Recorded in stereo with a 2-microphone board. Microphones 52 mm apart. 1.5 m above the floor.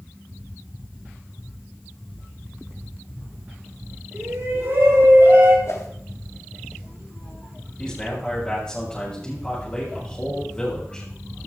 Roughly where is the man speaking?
Centre.